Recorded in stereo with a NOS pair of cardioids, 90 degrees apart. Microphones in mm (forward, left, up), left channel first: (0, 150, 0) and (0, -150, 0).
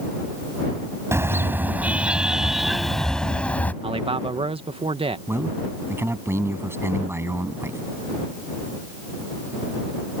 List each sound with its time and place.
1.1 s a car horn: 10° right; by 3.7 s 5° left
3.8 s a man speaking: 20° right
5.3 s a man speaking: 10° right